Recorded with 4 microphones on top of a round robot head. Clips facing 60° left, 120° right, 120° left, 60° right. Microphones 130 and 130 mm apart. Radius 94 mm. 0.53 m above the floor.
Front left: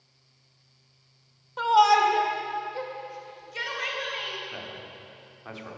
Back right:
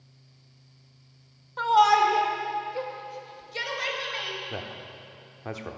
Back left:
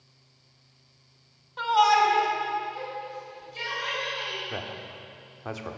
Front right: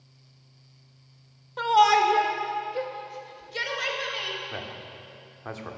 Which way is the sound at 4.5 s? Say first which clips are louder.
Back right 3 dB, back left 2 dB; 165° right.